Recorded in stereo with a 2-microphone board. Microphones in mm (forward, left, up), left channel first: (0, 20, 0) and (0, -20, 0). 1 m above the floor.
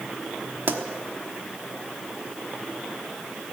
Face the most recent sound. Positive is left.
turn(degrees=-55)  # may be behind; listen again after turning